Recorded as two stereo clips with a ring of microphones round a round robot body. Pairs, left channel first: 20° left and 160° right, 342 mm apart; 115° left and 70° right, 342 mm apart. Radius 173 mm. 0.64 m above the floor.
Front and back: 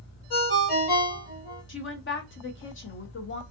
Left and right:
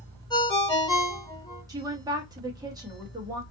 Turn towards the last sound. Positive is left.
turn(degrees=5)